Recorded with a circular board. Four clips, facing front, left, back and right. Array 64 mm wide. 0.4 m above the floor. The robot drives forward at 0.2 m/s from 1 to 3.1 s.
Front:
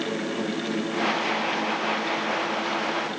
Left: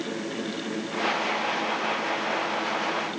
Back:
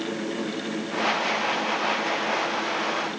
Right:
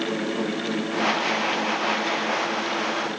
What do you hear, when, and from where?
Only background noise.